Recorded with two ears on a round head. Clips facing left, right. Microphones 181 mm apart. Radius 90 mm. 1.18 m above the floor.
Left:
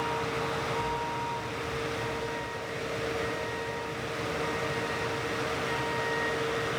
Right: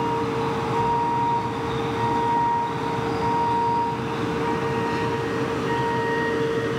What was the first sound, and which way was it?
A vehicle, 60° right (ahead or behind).